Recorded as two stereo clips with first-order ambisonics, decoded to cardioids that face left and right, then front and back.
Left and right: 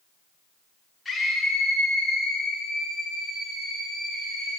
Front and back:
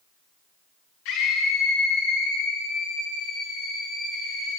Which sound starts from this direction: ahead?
A scream, at 1.1 s.